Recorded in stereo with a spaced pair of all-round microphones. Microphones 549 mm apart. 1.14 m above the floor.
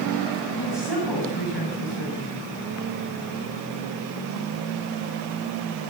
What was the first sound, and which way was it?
A woman speaking, 45° left (ahead or behind).